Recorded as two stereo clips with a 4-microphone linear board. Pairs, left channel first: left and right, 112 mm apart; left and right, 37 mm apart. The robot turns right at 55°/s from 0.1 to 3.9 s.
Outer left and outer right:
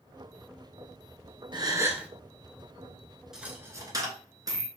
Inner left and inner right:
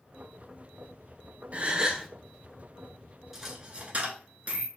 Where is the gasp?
40° right, 0.7 m; by 2.1 s 10° right, 0.7 m.